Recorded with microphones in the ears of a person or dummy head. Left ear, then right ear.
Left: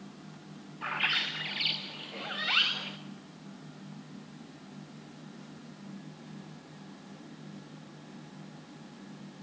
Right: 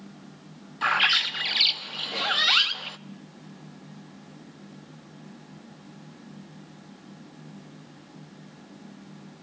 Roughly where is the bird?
Right.